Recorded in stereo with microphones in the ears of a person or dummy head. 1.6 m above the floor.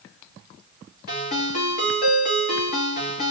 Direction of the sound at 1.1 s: 55° left (ahead or behind).